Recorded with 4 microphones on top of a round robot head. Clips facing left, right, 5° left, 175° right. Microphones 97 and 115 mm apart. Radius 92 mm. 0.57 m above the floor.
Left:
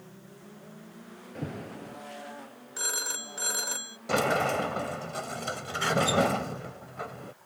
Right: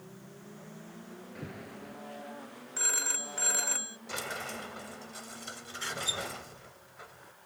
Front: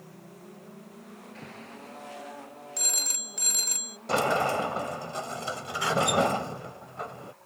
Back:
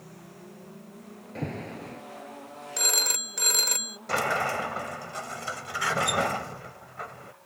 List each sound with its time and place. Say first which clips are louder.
1.4 s an alarm: left 8 dB, back 13 dB; 150° left
2.8 s a phone ringing: left 1 dB, back 10 dB; 165° left
4.1 s a sliding door: left 14 dB, front 3 dB; 70° left